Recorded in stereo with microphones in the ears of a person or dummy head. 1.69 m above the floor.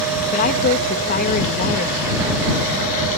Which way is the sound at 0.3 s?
40° left (ahead or behind).